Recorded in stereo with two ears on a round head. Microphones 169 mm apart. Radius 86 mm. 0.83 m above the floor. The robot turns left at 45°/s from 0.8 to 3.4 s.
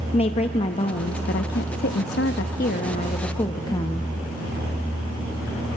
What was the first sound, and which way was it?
A woman speaking, 140° left.